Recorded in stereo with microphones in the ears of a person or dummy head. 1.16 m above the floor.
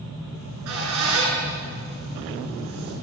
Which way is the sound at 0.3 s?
65° right (ahead or behind).